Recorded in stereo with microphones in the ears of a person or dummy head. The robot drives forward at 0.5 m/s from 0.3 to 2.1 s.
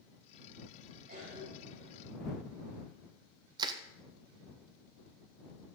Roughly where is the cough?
Right.